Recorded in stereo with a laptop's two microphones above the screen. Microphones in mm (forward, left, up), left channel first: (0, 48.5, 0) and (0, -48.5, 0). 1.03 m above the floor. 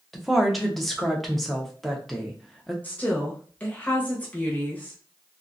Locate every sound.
0.1 s a woman speaking: centre (ahead or behind), 0.9 m
2.8 s a woman speaking: 15° left (ahead or behind), 0.9 m